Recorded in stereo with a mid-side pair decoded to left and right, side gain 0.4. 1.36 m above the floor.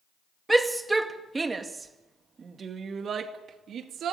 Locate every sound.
0.5 s a shout: 15° right, 2.5 m; by 4.1 s 70° right, 2.5 m